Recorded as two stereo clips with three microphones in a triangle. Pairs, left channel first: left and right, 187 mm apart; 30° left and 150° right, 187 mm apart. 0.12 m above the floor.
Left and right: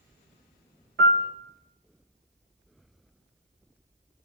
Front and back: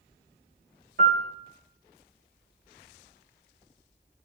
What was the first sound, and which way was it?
A piano, 105° right.